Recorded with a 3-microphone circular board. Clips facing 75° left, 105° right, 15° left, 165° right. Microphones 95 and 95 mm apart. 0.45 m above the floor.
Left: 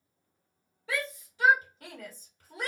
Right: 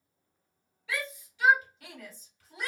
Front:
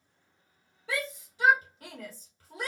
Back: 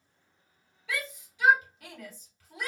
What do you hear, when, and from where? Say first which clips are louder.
0.9 s a shout: left 2 dB, front 2 dB; 45° left, 1.6 m